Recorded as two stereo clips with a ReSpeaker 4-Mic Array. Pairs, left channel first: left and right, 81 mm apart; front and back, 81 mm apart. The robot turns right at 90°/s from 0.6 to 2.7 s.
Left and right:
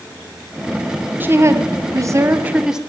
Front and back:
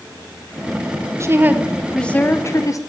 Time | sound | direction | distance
1.2 | a woman speaking | 145° right | 0.8 m